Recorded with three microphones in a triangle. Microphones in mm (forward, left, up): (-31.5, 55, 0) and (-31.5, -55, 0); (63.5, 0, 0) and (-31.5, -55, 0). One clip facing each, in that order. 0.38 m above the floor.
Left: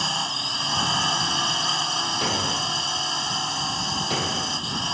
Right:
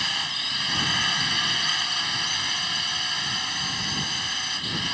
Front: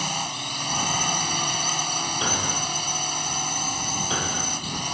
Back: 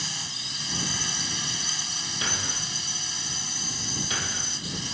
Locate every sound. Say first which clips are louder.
0.0 s a drone: left 5 dB, front 11 dB; 35° left
2.2 s a thud: left 7 dB, front 4 dB; 90° left